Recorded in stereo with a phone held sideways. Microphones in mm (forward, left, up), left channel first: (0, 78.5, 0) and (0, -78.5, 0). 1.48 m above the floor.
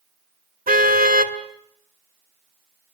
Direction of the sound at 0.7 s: 65° right (ahead or behind).